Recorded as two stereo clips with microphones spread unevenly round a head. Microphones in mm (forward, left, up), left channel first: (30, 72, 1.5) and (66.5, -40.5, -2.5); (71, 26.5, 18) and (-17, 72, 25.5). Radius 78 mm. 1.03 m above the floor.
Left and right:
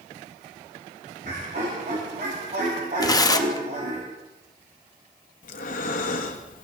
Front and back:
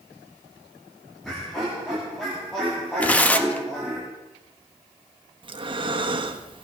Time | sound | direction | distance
1.2 | laughter | 115° right | 2.5 m
3.0 | tearing paper | 50° left | 1.1 m
5.4 | breathing | 115° left | 1.3 m